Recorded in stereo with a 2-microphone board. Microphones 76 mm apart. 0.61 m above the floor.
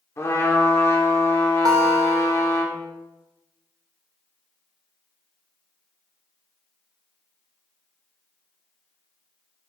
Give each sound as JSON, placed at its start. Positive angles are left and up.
{"t": 0.2, "sound": "a trumpet", "side_deg": 40, "distance_m": 1.9}
{"t": 1.6, "sound": "a guitar", "side_deg": -60, "distance_m": 1.8}